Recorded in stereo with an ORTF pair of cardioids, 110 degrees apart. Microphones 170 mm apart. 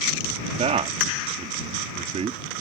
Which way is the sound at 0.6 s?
40° right.